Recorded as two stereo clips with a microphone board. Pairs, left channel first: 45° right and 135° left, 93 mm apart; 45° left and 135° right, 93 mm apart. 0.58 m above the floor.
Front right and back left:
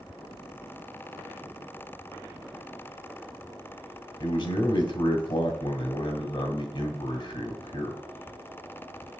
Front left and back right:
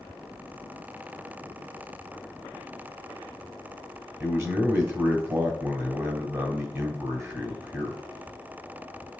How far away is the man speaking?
About 2.0 m.